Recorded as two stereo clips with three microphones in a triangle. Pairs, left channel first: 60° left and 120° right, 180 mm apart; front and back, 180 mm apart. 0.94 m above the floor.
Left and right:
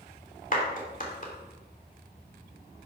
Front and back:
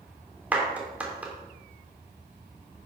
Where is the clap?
100° left, 2 m.